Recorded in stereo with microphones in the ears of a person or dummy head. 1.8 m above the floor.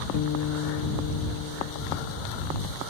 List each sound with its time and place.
0.1 s a guitar: 65° left (ahead or behind)